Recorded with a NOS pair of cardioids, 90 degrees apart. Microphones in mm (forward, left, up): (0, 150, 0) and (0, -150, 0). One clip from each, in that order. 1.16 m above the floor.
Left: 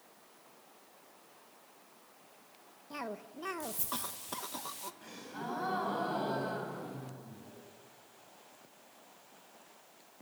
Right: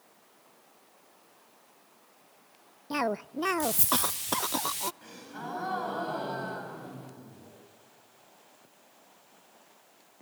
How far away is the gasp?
About 7 m.